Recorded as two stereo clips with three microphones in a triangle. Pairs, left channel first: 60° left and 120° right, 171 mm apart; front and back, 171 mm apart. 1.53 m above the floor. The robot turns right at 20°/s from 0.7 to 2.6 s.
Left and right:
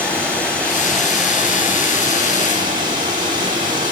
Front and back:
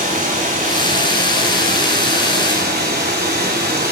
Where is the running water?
140° left, 5 m; by 3.9 s straight behind, 5 m.